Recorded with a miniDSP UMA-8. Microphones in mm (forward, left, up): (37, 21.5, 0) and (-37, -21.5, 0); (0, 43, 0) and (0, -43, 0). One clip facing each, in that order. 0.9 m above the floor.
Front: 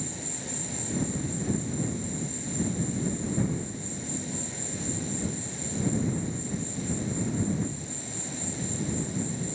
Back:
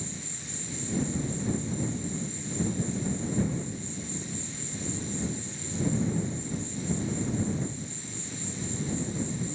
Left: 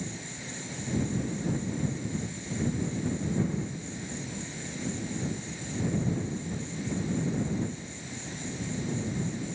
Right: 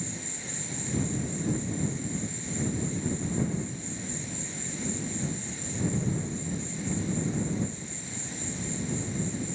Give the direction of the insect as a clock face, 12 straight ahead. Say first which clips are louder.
Front 4 dB, even; 12 o'clock.